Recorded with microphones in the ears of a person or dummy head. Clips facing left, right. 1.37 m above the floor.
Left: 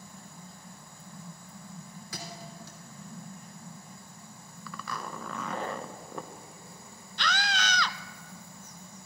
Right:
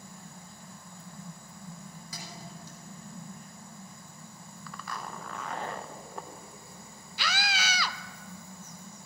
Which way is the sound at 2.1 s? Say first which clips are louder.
Left 3 dB; 55° left (ahead or behind).